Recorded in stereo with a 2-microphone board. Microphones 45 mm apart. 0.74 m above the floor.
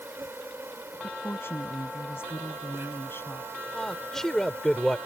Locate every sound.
0.0 s an insect: 65° right (ahead or behind)
1.0 s a woman speaking: 60° left (ahead or behind)
3.7 s a man speaking: 10° left (ahead or behind)